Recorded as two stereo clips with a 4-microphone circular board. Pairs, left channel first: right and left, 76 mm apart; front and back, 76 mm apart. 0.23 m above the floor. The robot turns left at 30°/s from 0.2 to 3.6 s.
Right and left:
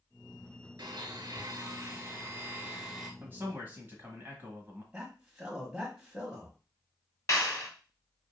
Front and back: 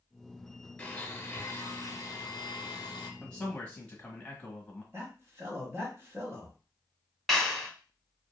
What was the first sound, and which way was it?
A blender, 70° left.